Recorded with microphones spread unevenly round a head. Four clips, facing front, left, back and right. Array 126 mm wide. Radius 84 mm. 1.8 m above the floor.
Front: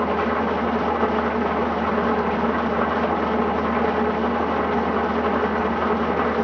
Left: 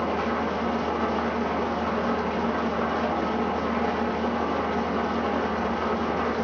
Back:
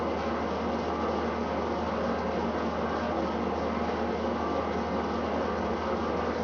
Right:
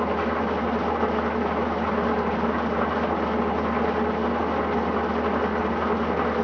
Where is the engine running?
10° right, 1.9 m.